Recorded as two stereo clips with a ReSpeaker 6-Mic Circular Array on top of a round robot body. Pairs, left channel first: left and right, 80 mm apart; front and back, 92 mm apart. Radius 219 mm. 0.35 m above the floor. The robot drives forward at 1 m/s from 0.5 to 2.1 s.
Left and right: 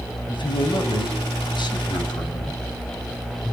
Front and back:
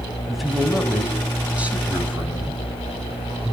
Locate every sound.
0.3 s a man speaking: 90° left, 4.5 m; by 3.5 s 110° left, 5 m